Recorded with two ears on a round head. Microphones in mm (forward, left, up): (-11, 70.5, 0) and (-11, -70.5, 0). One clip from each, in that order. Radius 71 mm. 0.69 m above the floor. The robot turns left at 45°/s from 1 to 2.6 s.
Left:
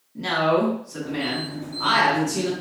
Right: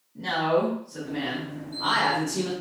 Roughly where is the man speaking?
Ahead left.